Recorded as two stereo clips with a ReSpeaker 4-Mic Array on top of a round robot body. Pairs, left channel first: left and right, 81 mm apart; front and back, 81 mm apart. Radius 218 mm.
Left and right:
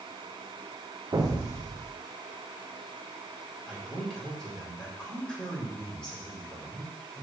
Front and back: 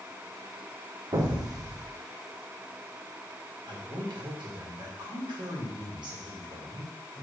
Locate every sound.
1.1 s an explosion: 140° right, 0.7 m
3.7 s a man speaking: 170° left, 2.5 m